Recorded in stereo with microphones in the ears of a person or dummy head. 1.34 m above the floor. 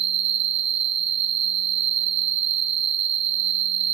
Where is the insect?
30° right (ahead or behind), 0.7 m.